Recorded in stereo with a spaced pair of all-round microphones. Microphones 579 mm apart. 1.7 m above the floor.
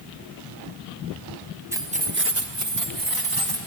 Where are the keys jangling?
5° right (ahead or behind), 1.0 m; by 3.6 s 40° right (ahead or behind), 2 m.